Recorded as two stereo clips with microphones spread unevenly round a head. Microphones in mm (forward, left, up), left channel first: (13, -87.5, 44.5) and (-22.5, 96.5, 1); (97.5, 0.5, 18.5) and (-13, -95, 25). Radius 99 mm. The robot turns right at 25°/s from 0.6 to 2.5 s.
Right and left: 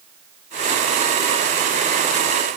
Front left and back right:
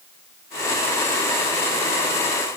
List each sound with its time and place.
Only background noise.